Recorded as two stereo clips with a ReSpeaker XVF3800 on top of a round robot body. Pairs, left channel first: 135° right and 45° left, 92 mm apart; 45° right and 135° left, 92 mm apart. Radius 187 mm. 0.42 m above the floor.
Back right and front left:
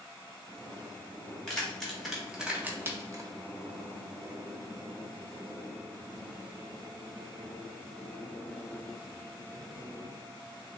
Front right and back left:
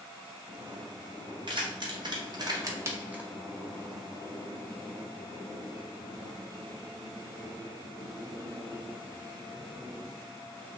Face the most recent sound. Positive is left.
turn(degrees=60)